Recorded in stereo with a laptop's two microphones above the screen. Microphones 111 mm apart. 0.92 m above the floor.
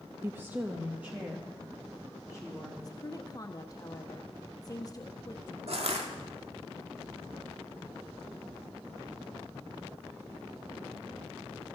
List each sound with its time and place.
0.2 s a woman speaking: 20° right (ahead or behind), 0.6 m; by 2.7 s 5° right (ahead or behind), 1.8 m
2.8 s a woman speaking: 35° left (ahead or behind), 1.2 m
5.7 s crushing: 70° right (ahead or behind), 1.9 m